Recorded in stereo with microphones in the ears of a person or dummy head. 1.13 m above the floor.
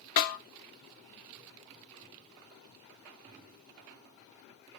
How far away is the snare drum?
About 0.7 m.